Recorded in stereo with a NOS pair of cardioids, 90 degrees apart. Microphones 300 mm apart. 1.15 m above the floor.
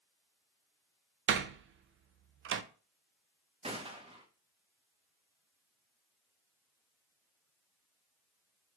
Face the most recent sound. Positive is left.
turn(degrees=-20)